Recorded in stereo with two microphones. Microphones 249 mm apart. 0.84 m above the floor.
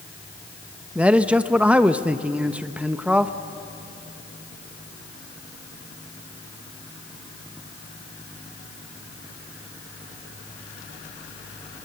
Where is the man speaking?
5° right (ahead or behind), 0.8 m.